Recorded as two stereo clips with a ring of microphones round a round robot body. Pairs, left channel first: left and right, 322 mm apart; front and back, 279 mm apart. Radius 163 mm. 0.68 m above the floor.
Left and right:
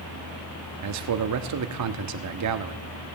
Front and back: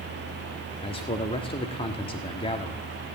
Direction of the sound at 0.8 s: 70° right.